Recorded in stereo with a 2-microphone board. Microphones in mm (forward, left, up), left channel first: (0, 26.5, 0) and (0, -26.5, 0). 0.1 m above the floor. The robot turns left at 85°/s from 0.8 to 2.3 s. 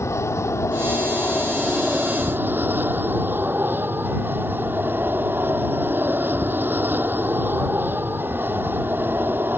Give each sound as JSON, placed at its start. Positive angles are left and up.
{"t": 0.0, "sound": "an aircraft", "azimuth_deg": 80}